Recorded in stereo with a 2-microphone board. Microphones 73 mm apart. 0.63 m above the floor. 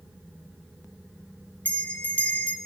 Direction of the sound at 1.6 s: 20° left (ahead or behind).